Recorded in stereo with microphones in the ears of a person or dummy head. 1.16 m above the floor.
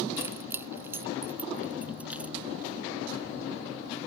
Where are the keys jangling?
15° right (ahead or behind); by 2.4 s 10° right (ahead or behind).